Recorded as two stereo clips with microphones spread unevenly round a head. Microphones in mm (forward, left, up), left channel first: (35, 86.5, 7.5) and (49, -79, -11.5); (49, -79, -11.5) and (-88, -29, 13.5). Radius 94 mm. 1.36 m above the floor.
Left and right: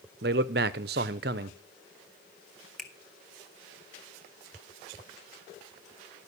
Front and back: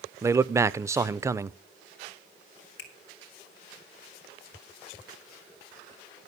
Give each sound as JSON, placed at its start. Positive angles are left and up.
{"t": 0.2, "sound": "a man speaking", "azimuth_deg": -125, "distance_m": 0.5}
{"t": 2.8, "sound": "a finger snap", "azimuth_deg": 10, "distance_m": 1.9}